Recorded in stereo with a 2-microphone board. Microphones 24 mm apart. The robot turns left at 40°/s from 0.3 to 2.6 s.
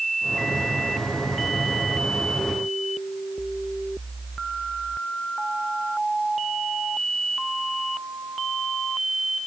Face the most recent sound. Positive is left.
No sound to turn to.